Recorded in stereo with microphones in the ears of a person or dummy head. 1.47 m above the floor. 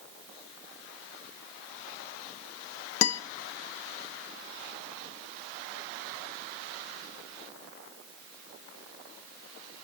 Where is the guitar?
80° left, 0.7 m.